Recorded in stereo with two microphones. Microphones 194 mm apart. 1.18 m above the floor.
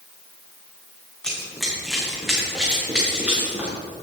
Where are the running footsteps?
5° left (ahead or behind), 4.5 m; by 3.7 s 10° right (ahead or behind), 6.5 m.